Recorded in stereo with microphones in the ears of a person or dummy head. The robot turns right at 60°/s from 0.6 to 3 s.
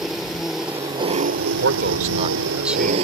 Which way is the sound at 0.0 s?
170° right.